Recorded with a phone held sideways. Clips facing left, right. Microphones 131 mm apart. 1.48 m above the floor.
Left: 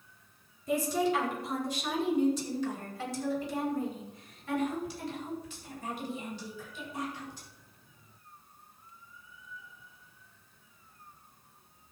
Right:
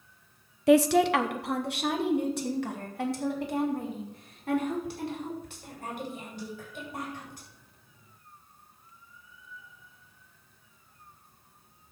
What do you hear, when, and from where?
0.7 s a woman speaking: 80° right, 0.7 m; by 7.5 s 60° right (ahead or behind), 8.5 m